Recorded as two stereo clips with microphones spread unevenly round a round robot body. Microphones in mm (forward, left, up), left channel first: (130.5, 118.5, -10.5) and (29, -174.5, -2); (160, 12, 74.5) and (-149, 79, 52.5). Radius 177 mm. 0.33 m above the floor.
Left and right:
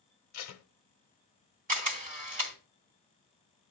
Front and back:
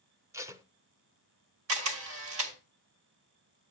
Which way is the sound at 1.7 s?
170° right.